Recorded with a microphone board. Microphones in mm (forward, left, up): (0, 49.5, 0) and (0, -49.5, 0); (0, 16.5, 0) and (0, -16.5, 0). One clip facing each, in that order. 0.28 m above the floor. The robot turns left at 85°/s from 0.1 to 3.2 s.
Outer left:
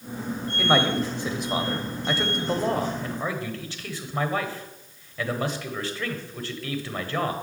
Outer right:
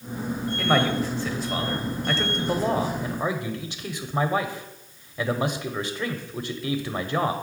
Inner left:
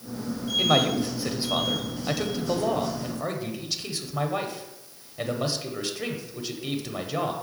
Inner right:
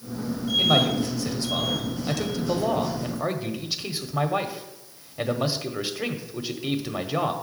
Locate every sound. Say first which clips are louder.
0.6 s a man speaking: outer left 1 dB, inner right 1 dB; 5° left (ahead or behind), 0.9 m; by 7.3 s 15° right (ahead or behind), 0.9 m